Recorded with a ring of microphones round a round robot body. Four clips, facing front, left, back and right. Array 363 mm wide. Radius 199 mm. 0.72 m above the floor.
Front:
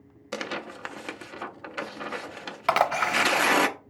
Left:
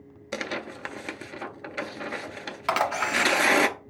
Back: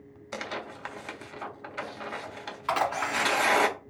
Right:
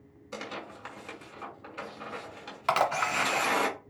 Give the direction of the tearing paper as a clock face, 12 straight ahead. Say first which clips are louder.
Left 7 dB, front 3 dB; 10 o'clock.